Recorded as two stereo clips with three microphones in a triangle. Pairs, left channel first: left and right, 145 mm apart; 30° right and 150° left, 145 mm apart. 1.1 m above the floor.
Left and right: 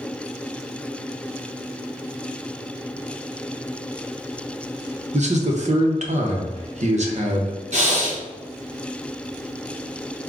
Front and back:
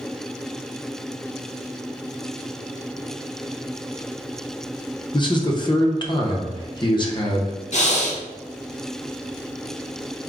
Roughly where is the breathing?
Ahead right.